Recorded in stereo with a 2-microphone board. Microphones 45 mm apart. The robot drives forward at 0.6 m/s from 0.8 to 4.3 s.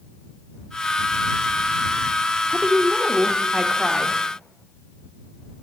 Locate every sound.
2.5 s a woman speaking: 20° right (ahead or behind), 1.0 m; by 4.2 s 10° right (ahead or behind), 1.6 m